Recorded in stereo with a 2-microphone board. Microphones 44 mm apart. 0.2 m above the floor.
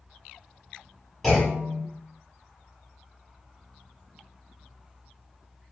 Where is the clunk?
5° left (ahead or behind), 1.6 m.